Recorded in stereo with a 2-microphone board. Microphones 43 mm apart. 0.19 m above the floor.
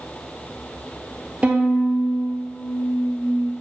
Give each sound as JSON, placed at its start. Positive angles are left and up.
{"t": 1.4, "sound": "a violin", "side_deg": -30, "distance_m": 0.7}